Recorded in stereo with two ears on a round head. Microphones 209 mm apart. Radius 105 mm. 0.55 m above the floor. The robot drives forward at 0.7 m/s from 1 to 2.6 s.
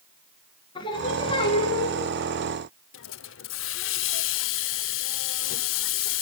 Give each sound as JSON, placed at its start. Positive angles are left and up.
{"t": 0.8, "sound": "singing", "side_deg": 20, "distance_m": 3.5}
{"t": 2.9, "sound": "a hiss", "side_deg": 60, "distance_m": 0.7}